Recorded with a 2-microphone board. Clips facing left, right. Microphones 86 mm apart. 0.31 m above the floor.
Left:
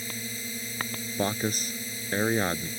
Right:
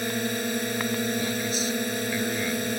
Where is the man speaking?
50° left (ahead or behind).